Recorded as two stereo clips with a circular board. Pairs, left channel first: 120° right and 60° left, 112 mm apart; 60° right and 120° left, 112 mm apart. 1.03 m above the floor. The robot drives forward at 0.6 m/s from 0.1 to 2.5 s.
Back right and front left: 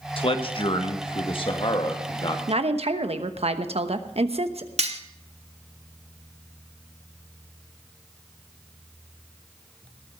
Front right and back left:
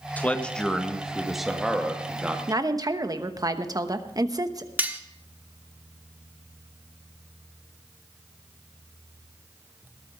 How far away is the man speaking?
About 1.2 m.